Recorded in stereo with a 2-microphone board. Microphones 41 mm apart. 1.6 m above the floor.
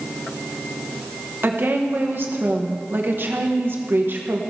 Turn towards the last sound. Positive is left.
turn(degrees=-55)  # may be behind; listen again after turning